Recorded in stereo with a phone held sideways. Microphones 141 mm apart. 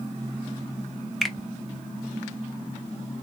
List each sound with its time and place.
1.2 s a finger snap: centre (ahead or behind), 0.6 m